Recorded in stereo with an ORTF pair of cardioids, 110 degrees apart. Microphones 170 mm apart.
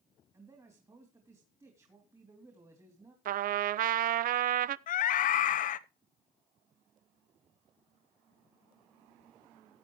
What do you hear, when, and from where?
0.3 s a man speaking: 20° right, 3 m
3.2 s a trumpet: 55° right, 0.5 m
4.9 s a scream: 55° left, 1.0 m